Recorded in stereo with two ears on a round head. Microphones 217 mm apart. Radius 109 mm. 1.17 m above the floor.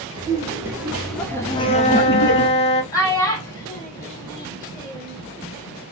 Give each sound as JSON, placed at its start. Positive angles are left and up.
{"t": 0.1, "sound": "laughter", "side_deg": -15, "distance_m": 1.2}
{"t": 1.5, "sound": "a flute", "side_deg": 25, "distance_m": 0.5}
{"t": 2.9, "sound": "a child speaking", "side_deg": 15, "distance_m": 1.3}